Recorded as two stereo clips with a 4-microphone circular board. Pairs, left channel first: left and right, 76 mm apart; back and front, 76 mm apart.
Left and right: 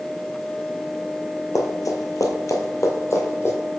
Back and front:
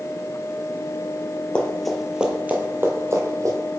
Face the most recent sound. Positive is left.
turn(degrees=35)